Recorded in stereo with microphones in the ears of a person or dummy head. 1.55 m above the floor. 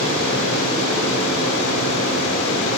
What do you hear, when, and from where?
0.0 s a fan: 70° left (ahead or behind), 8.5 m